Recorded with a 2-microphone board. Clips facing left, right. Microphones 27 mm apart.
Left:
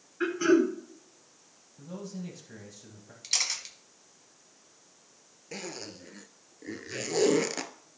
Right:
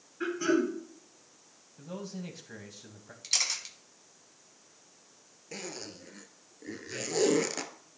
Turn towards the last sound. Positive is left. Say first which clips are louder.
# left 2 dB
turn(degrees=10)  # may be behind; listen again after turning